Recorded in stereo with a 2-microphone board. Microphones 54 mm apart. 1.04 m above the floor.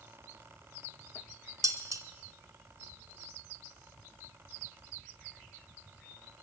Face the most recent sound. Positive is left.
turn(degrees=-80)